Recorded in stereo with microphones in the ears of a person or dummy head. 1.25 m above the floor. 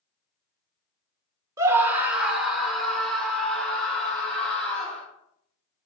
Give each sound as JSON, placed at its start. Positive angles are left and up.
{"t": 1.6, "sound": "a scream", "side_deg": -25, "distance_m": 1.0}